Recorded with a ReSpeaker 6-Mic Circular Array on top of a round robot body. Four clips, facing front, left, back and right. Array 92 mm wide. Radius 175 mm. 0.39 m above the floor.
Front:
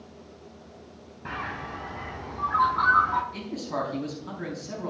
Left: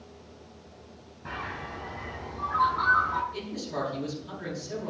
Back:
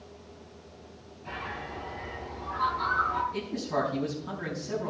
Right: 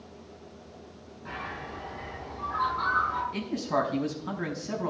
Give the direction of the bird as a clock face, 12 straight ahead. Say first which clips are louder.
Left 1 dB, front 3 dB; 12 o'clock.